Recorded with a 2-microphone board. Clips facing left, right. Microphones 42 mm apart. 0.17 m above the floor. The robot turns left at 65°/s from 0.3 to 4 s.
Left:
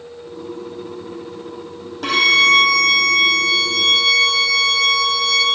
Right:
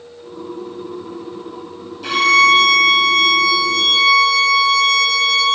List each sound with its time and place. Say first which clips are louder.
2.0 s a violin: right 2 dB; 115° left, 2.5 m; by 5.5 s 15° right, 2.5 m